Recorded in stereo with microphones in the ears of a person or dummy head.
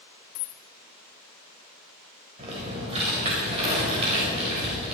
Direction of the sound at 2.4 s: 35° right (ahead or behind).